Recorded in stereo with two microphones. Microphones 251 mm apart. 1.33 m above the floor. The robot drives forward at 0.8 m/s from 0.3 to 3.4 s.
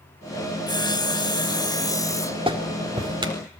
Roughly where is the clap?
Right.